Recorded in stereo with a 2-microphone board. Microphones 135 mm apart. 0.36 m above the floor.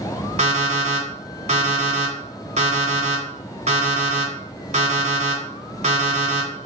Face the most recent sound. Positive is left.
turn(degrees=-55)  # may be behind; listen again after turning